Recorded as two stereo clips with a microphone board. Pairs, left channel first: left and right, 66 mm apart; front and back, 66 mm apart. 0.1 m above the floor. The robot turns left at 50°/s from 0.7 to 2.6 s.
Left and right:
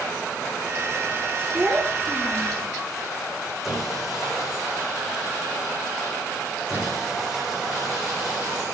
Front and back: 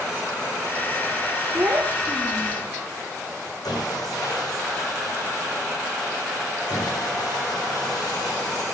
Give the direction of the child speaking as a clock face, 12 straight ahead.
5 o'clock.